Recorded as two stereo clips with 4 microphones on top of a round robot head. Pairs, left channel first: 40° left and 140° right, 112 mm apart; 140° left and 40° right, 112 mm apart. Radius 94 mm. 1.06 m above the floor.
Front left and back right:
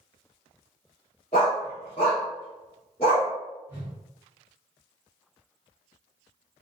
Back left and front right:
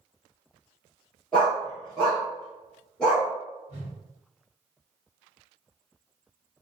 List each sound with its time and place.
1.3 s a dog barking: 60° left, 0.8 m
3.7 s a whoosh: 70° right, 0.7 m